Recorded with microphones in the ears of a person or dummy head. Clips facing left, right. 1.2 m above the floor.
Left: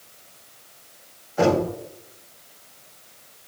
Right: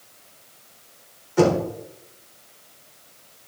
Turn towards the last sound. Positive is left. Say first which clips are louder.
# right 1 dB
turn(degrees=-80)